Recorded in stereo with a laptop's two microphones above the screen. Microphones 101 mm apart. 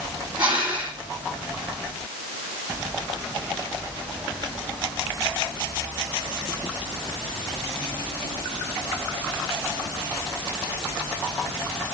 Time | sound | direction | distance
0.4 | breathing | 55° right (ahead or behind) | 7 m